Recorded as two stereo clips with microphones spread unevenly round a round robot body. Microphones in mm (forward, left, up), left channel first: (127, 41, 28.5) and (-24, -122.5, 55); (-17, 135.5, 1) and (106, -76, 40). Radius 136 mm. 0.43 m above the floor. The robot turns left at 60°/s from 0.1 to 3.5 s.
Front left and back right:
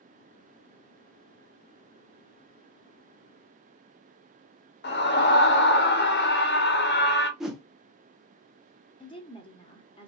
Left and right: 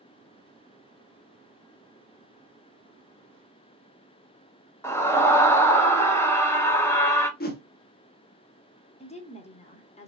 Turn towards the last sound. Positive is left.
turn(degrees=90)